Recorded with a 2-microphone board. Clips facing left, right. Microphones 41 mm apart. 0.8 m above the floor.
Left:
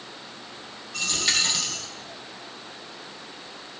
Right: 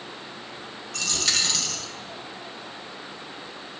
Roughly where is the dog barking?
No dog barking in this recording.